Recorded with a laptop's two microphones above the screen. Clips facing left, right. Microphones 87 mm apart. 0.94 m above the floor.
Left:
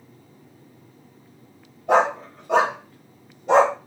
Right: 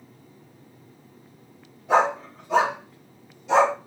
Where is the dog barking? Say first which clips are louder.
Left 2 dB; 65° left (ahead or behind), 2.5 m; by 3.8 s 45° left (ahead or behind), 1.3 m.